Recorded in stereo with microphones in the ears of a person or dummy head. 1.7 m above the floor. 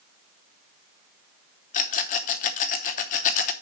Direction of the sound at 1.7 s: 40° left (ahead or behind).